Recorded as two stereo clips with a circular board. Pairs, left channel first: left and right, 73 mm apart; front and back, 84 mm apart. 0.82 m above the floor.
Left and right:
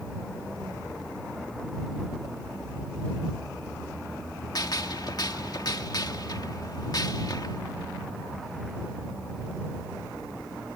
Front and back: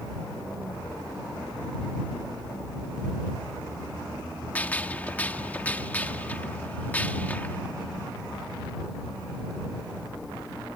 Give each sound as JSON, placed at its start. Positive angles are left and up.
{"t": 4.5, "sound": "a gunshot", "azimuth_deg": 70}